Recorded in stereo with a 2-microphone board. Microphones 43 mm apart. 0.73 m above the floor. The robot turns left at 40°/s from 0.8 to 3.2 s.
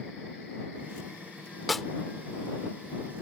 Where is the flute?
I don't hear a flute.